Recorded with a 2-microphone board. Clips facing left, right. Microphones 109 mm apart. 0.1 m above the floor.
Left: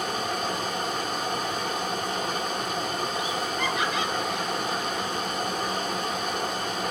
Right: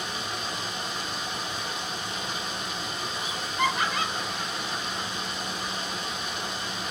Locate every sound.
0.0 s running water: 55° left (ahead or behind), 0.9 m
3.2 s laughter: 50° right (ahead or behind), 2.5 m